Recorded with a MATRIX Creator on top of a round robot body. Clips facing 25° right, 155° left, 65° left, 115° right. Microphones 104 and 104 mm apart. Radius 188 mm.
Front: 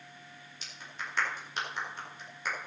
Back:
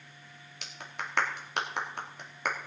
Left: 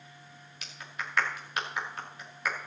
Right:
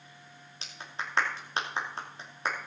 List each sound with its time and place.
0.6 s a clap: 175° right, 2.5 m